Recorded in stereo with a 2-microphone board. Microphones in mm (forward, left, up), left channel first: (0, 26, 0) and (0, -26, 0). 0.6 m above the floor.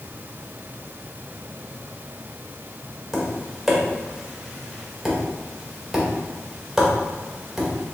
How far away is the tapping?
About 1.0 m.